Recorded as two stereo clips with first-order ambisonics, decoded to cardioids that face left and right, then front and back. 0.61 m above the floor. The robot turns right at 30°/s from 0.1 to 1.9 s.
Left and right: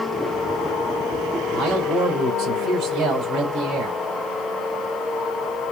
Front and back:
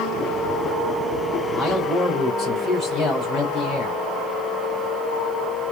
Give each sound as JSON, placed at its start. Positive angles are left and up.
{"t": 1.5, "sound": "a man speaking", "azimuth_deg": -70, "distance_m": 3.5}